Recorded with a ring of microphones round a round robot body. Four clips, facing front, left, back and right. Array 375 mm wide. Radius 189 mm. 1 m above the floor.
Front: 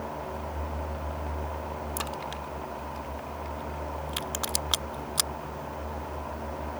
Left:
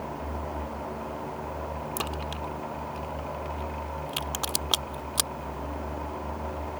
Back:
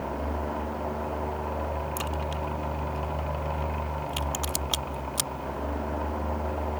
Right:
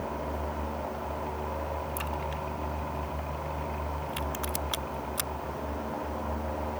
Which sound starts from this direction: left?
A crack, at 2.0 s.